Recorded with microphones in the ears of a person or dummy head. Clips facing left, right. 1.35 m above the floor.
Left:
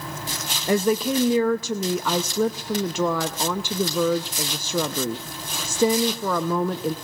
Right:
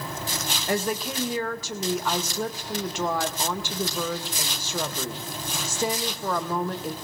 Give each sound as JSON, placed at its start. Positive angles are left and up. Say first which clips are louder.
{"t": 0.7, "sound": "a woman speaking", "louder": "left 7 dB", "side_deg": 70, "distance_m": 0.6}